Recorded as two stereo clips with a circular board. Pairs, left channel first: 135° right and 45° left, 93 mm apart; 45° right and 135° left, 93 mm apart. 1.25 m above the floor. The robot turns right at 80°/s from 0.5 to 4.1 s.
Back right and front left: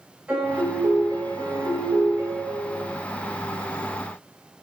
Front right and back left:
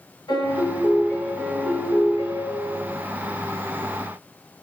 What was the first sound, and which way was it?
A piano, 20° right.